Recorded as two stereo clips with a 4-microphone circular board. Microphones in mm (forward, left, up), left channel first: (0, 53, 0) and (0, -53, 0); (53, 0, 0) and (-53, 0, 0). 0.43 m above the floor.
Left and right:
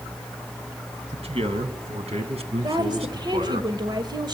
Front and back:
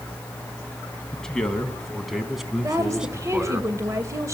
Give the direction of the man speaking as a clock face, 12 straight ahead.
3 o'clock.